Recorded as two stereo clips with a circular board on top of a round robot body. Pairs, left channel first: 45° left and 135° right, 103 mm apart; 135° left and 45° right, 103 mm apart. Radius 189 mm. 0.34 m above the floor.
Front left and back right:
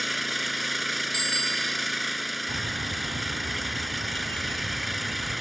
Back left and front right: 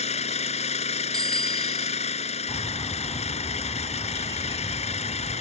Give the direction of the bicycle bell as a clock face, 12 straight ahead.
12 o'clock.